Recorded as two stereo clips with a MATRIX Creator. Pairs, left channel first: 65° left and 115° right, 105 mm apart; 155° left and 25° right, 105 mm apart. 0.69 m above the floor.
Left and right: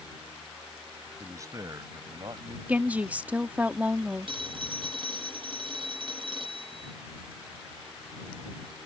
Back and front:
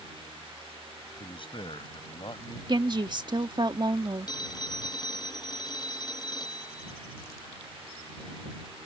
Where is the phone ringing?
150° right.